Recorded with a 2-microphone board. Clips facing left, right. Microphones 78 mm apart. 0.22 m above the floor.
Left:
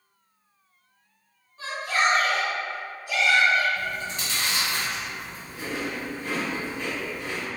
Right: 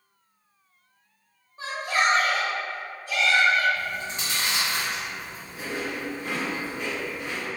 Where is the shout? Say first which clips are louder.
Even; 25° right (ahead or behind), 1.2 m; by 3.6 s 20° left (ahead or behind), 1.7 m.